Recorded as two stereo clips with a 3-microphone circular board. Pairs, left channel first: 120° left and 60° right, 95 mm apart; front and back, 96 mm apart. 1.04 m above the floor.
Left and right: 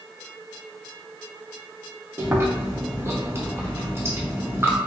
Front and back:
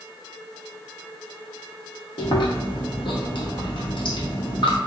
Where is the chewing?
5° right, 0.9 m.